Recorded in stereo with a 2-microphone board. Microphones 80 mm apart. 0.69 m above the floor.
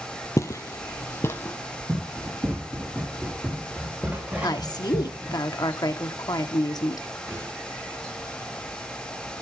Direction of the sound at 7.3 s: 40° right (ahead or behind).